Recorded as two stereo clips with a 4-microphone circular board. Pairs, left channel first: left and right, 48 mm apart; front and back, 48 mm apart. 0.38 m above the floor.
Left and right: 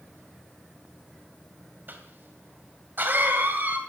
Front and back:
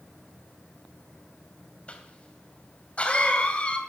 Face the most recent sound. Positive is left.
turn(degrees=-60)